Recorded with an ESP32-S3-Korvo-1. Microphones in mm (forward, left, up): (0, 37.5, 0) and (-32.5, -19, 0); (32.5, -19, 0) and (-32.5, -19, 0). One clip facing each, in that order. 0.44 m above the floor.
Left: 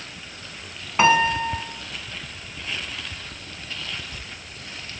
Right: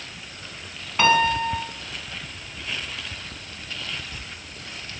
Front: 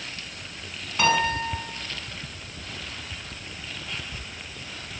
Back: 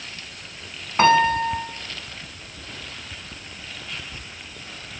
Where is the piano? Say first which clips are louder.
Left 1 dB, back 7 dB; 130° left, 2.5 m.